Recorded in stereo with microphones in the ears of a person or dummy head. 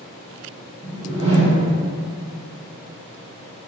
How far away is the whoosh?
About 1.3 m.